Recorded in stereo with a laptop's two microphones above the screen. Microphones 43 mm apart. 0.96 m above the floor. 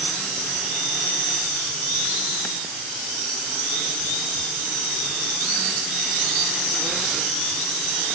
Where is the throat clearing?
I don't hear throat clearing.